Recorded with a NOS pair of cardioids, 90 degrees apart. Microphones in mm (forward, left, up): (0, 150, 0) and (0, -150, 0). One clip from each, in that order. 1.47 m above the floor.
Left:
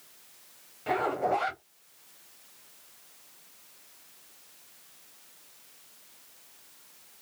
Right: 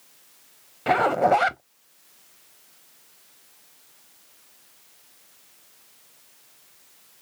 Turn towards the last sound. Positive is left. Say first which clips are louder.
# right 9 dB
turn(degrees=-50)